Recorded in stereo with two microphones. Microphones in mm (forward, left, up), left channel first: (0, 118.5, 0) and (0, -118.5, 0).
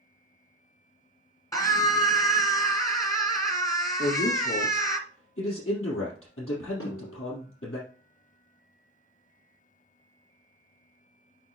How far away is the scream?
About 1.9 m.